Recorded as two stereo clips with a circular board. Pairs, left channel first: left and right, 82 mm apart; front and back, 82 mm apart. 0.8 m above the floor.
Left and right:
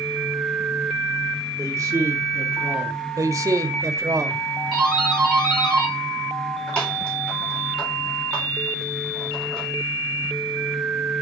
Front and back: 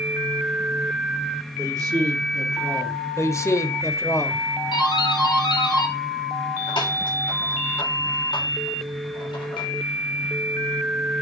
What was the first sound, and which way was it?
A man speaking, 140° right.